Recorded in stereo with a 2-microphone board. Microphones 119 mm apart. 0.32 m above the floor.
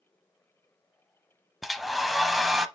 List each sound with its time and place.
1.6 s a hair dryer: centre (ahead or behind), 0.6 m